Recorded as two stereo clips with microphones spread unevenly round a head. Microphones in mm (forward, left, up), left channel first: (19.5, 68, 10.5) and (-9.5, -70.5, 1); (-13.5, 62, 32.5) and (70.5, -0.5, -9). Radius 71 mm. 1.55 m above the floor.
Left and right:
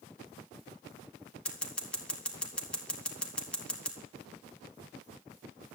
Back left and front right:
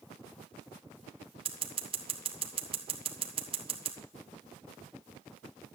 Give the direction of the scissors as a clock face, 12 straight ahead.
12 o'clock.